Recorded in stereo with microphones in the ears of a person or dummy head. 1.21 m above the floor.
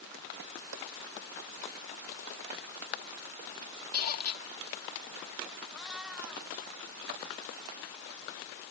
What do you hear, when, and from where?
3.9 s a squeak: 45° left (ahead or behind)
5.7 s a cat meowing: 10° right (ahead or behind)